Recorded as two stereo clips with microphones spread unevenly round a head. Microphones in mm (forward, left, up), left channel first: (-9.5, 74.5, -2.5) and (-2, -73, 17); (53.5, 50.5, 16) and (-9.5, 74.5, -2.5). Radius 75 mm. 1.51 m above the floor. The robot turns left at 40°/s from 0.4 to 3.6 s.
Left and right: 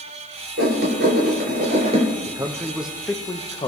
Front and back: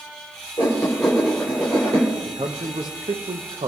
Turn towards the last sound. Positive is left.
turn(degrees=155)